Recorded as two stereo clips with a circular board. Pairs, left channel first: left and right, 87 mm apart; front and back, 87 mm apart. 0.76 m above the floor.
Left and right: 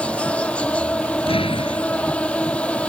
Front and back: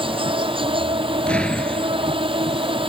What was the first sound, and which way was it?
An insect, 165° left.